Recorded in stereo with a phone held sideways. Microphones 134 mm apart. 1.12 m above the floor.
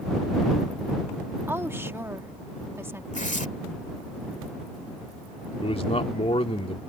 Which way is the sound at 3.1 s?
65° left (ahead or behind).